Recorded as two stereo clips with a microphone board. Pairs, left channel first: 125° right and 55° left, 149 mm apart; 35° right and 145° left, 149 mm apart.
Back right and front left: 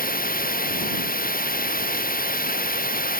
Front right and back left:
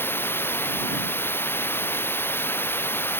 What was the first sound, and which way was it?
Running water, 110° right.